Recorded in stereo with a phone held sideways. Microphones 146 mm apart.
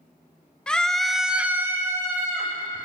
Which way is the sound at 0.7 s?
5° left (ahead or behind).